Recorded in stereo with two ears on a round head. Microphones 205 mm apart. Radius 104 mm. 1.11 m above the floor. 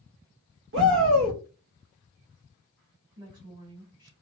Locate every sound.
0.7 s a shout: 55° right (ahead or behind), 0.9 m
3.2 s a woman speaking: 20° right (ahead or behind), 1.9 m